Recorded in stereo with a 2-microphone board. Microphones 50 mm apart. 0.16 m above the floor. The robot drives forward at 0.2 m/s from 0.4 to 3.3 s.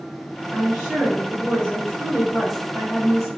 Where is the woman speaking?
10° right (ahead or behind), 1.9 m.